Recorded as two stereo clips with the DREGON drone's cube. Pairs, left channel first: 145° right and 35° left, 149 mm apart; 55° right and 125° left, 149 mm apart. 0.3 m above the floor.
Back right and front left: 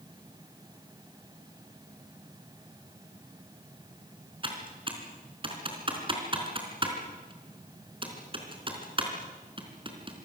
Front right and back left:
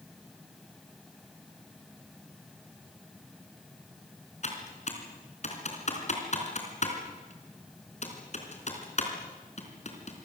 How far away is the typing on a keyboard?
About 4 m.